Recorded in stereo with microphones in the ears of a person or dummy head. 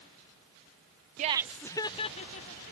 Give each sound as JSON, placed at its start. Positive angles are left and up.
{"t": 1.2, "sound": "laughter", "side_deg": -40}